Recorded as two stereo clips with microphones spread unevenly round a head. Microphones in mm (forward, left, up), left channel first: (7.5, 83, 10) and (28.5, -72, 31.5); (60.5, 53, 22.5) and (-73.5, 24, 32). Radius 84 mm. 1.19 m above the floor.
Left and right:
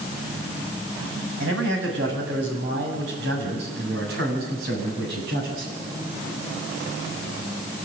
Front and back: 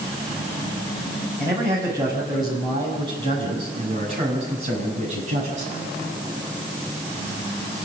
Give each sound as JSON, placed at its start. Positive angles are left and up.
{"t": 1.4, "sound": "a man speaking", "azimuth_deg": -95, "distance_m": 7.5}